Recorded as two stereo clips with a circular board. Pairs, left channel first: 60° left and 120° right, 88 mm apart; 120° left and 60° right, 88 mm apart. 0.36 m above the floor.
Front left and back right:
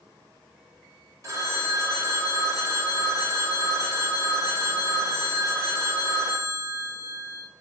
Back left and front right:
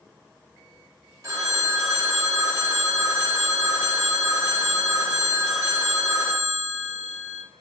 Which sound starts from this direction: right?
A phone ringing, at 1.2 s.